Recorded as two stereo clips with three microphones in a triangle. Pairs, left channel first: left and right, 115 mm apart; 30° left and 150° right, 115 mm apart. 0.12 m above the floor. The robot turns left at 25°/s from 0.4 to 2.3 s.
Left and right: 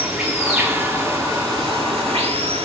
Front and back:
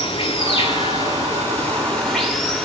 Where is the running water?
5° right, 8 m; by 2.7 s 55° right, 8 m.